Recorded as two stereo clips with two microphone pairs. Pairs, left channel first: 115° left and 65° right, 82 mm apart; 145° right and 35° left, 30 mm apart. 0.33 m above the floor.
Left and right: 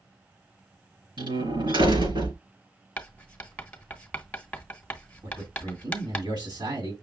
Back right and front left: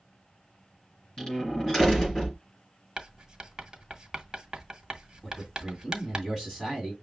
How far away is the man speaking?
About 2 m.